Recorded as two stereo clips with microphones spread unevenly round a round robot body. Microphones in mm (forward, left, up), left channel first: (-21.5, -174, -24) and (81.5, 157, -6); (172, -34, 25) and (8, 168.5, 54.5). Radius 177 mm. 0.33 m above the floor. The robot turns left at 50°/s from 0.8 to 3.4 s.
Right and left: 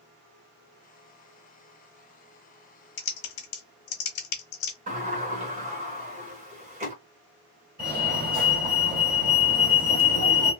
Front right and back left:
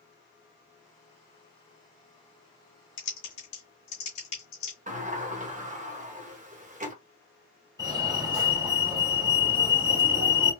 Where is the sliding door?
115° left, 1.1 m.